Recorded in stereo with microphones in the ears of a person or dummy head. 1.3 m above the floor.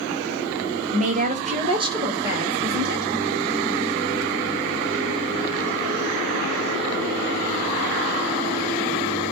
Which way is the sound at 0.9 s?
30° right (ahead or behind).